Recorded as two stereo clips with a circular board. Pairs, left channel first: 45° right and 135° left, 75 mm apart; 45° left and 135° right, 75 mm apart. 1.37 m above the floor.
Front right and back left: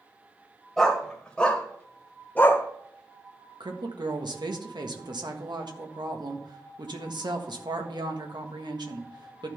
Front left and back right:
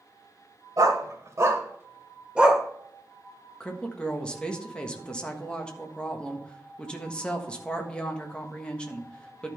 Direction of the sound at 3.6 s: 125° left.